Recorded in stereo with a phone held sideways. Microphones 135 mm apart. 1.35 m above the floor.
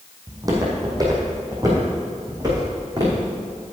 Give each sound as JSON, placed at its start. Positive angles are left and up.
{"t": 0.3, "sound": "footsteps", "side_deg": -25, "distance_m": 3.5}